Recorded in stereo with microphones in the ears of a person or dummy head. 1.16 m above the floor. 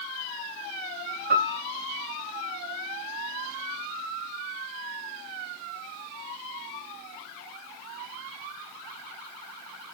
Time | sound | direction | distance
1.3 | a piano | 45° right (ahead or behind) | 1.6 m